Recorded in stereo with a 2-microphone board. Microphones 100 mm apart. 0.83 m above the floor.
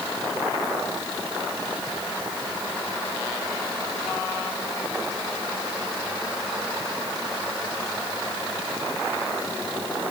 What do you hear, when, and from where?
Only background noise.